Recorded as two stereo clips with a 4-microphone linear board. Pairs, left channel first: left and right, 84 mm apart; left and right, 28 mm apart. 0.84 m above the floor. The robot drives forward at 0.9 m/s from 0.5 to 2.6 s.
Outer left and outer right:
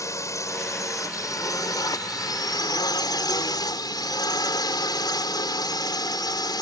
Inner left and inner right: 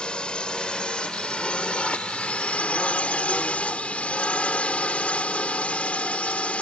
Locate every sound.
0.0 s a drone: 40° left (ahead or behind); by 6.6 s 55° left (ahead or behind)